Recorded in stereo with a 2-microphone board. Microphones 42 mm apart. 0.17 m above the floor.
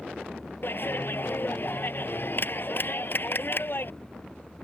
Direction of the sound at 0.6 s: 50° left (ahead or behind).